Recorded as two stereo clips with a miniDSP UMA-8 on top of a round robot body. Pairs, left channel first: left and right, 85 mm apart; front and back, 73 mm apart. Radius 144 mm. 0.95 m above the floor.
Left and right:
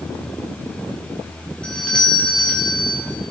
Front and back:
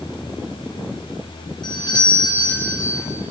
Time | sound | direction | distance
1.6 | a doorbell | 10° left | 5 m